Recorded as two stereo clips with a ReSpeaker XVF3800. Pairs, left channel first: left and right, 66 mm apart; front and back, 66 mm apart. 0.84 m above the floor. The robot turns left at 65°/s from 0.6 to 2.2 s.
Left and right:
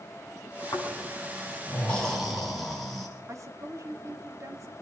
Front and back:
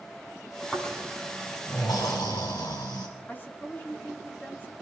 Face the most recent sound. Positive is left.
turn(degrees=-60)